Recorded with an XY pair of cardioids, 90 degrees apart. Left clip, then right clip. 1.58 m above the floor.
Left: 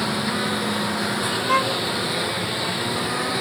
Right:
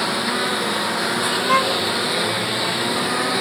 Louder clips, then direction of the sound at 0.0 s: Right 3 dB; 30° right.